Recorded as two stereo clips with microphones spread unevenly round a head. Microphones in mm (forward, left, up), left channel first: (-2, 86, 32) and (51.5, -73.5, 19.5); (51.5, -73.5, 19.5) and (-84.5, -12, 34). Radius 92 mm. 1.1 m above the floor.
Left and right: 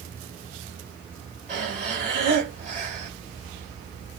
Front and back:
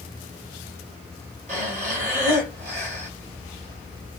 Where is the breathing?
165° right, 3 m.